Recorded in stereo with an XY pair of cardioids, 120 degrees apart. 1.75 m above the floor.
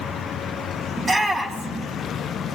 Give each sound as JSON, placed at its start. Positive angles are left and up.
{"t": 1.0, "sound": "a shout", "azimuth_deg": -25, "distance_m": 2.0}